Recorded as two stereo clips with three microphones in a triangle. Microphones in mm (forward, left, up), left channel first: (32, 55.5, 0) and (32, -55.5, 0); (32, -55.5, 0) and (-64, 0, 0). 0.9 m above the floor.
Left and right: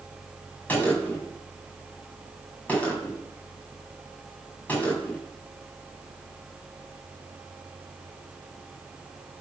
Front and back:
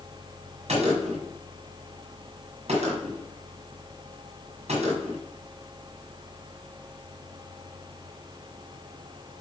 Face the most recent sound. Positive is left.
turn(degrees=165)